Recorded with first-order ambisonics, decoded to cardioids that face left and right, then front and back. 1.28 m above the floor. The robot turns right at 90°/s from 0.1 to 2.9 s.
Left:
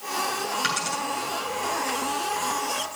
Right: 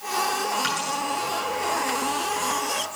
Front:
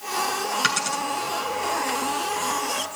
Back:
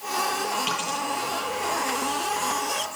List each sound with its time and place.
0.6 s a dropped coin: 15° left, 7.5 m; by 1.0 s 50° left, 7.5 m